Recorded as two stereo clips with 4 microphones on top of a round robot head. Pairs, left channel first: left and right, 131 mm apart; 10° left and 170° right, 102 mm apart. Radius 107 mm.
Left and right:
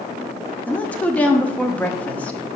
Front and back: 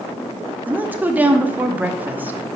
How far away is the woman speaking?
About 0.8 m.